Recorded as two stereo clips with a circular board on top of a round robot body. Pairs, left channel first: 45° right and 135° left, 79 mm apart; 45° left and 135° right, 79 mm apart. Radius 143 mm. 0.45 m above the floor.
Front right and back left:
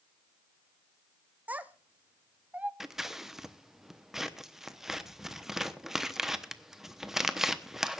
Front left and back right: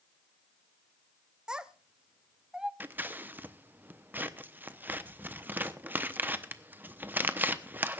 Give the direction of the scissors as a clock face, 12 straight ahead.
5 o'clock.